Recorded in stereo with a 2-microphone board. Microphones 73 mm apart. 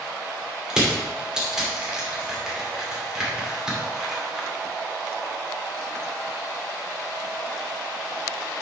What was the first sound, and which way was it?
Crushing, 10° right (ahead or behind).